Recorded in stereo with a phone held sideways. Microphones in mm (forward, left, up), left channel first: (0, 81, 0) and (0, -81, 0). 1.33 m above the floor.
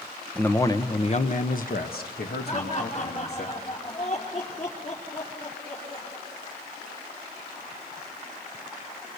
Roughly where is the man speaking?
Centre.